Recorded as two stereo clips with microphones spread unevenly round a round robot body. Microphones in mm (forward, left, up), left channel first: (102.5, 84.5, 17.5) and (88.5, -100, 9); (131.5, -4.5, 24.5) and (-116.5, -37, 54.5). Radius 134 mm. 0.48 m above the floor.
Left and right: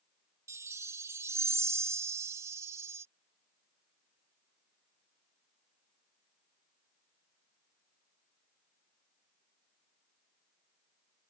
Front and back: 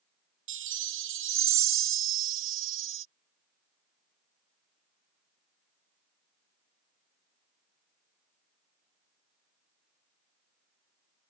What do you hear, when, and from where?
0.5 s a chime: 160° right